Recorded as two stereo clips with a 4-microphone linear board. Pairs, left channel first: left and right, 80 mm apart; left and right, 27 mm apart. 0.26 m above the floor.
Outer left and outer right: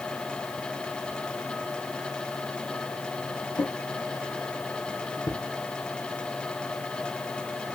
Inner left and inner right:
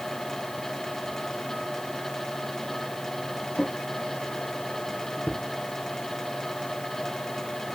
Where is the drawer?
65° left (ahead or behind), 3 m.